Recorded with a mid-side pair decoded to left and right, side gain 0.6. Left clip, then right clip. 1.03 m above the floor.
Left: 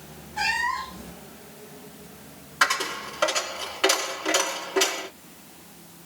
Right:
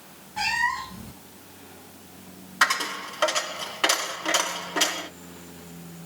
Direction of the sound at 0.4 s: 15° right.